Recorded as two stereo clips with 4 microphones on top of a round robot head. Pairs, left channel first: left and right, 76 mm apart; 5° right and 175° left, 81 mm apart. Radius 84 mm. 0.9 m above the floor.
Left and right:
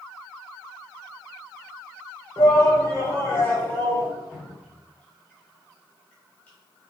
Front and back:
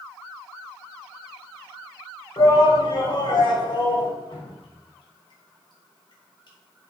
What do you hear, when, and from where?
2.4 s a shout: 35° left, 3.5 m; by 4.1 s 15° left, 3.5 m
4.3 s dripping: 15° left, 4 m